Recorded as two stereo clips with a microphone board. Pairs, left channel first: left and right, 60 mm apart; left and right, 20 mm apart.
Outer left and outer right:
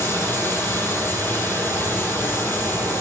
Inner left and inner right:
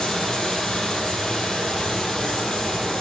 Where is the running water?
35° left (ahead or behind), 4 m.